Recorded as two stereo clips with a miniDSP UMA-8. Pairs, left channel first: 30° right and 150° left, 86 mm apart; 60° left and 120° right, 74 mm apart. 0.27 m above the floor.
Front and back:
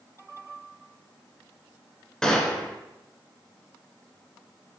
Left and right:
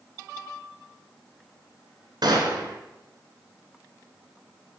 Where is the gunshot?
110° right, 2.5 m.